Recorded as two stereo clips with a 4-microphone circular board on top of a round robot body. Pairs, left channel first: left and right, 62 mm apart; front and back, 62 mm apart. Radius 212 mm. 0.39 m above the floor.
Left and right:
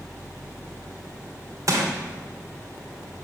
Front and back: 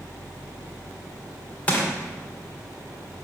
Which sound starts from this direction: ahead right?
Crushing, at 1.7 s.